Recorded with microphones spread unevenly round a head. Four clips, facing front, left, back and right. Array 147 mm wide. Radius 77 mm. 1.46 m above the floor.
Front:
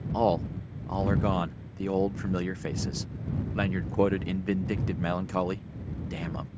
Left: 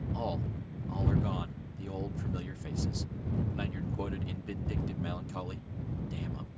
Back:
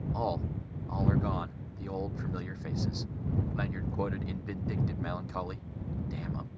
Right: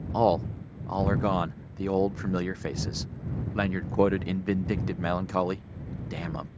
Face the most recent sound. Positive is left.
turn(degrees=-55)